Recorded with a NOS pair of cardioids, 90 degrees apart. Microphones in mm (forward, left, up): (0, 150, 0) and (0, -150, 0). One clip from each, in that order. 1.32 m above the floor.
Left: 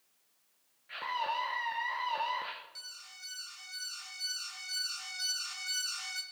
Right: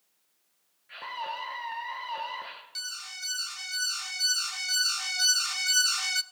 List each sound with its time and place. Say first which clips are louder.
0.9 s a scream: left 1 dB; 10° left, 1.4 m
2.8 s an alarm: right 10 dB; 50° right, 0.6 m